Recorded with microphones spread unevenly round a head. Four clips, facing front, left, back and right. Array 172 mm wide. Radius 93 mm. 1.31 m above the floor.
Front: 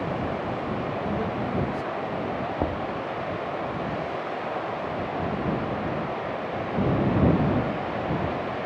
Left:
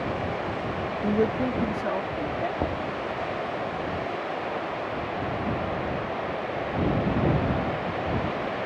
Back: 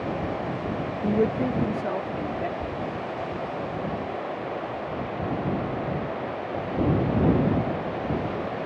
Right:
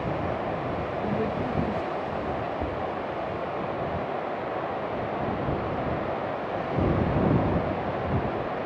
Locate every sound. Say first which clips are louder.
1.0 s a man speaking: left 6 dB, back 4 dB; 155° left; by 2.5 s 150° left
2.6 s knocking: left 2 dB, front 3 dB; 25° left